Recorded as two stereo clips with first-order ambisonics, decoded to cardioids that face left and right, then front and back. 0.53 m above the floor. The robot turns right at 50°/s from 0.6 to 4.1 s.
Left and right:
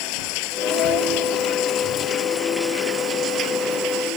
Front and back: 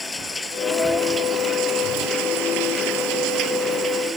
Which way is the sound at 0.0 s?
80° left.